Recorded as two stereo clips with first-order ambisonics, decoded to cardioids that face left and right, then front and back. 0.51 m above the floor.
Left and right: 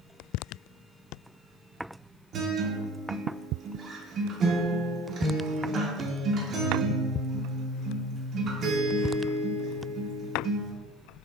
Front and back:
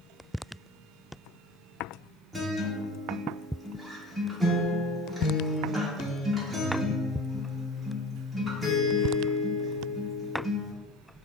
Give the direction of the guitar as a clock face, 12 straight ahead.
3 o'clock.